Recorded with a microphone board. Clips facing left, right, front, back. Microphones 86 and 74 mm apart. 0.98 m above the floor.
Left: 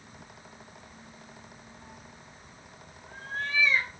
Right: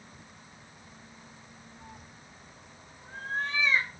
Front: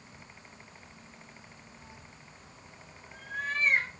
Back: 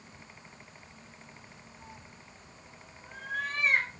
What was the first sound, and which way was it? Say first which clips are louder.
A cat meowing: left 1 dB, back 1 dB; 145° right.